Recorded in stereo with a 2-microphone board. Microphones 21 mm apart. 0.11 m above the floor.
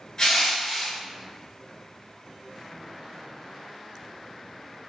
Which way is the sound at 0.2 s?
35° left (ahead or behind).